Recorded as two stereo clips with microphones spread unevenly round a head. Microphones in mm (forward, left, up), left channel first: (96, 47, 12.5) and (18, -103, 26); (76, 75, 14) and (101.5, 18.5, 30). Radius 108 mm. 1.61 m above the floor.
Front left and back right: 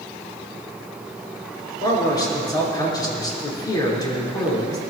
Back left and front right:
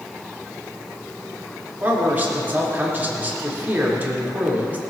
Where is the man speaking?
5° right, 4.5 m.